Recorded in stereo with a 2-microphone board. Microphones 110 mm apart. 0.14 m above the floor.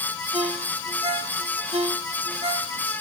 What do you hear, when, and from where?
0.3 s a ringtone: 70° right (ahead or behind), 1.1 m